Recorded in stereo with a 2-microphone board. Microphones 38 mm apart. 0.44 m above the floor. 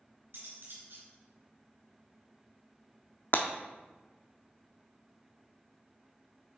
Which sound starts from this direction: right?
Cutlery clinking, at 0.3 s.